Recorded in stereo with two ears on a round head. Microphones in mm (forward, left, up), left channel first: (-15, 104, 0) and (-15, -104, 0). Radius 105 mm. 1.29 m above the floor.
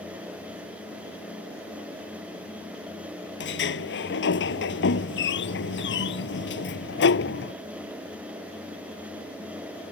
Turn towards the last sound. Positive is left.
turn(degrees=55)  # may be behind; listen again after turning